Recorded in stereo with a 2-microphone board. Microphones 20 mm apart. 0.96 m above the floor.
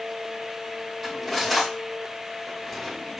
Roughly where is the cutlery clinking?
Centre.